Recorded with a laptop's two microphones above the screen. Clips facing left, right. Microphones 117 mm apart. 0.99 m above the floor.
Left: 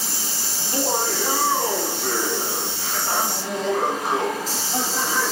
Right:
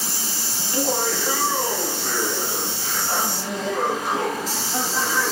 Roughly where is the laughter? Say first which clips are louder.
Even; left.